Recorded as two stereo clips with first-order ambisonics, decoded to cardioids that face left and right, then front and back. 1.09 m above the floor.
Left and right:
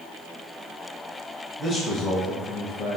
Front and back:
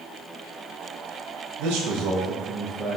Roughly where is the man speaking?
Behind.